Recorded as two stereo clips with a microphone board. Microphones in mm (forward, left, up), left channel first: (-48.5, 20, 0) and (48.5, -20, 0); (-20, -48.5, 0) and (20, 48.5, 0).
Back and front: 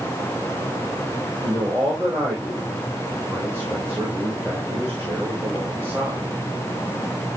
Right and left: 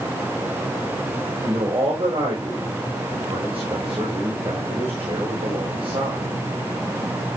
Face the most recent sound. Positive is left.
turn(degrees=40)